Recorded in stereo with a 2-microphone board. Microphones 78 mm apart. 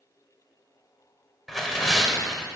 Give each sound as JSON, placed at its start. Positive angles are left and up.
{"t": 1.5, "sound": "tearing paper", "side_deg": 0, "distance_m": 1.1}